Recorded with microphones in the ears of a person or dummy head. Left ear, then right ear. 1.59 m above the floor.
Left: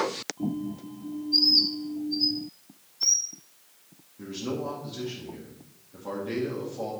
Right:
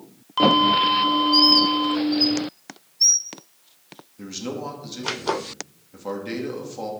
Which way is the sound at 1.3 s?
25° right (ahead or behind).